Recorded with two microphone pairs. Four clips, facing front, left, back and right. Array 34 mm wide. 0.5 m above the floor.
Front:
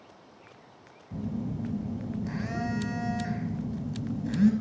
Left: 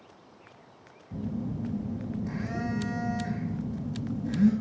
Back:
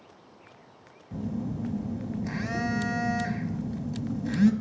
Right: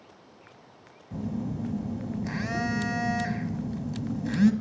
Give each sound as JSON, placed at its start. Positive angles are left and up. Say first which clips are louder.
{"t": 1.1, "sound": "a phone buzzing", "louder": "right 1 dB, back 1 dB", "azimuth_deg": -120, "distance_m": 0.8}